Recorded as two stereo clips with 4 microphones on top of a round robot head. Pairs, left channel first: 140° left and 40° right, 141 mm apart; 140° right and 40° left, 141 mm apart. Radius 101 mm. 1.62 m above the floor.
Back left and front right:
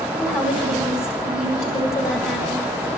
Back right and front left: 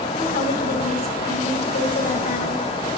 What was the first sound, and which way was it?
A woman speaking, 170° right.